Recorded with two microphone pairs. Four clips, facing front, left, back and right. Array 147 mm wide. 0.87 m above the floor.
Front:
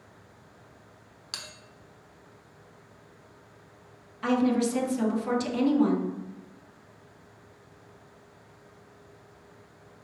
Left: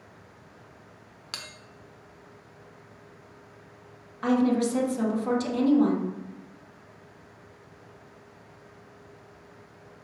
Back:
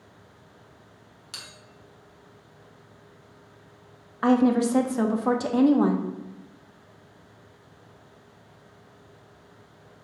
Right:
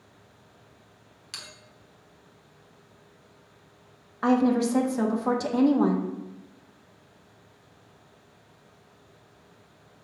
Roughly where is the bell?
Left.